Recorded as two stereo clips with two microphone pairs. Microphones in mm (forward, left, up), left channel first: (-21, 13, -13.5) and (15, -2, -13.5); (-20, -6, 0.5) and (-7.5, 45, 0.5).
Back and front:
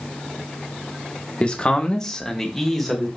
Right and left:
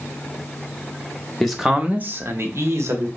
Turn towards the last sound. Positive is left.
turn(degrees=65)